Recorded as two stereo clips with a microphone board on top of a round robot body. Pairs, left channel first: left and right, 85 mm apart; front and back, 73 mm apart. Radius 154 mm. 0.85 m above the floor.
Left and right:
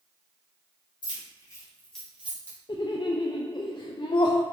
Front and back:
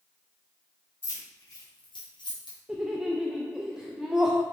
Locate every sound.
1.0 s keys jangling: 55° left, 1.9 m; by 2.6 s 30° right, 1.7 m
2.7 s laughter: 95° left, 0.6 m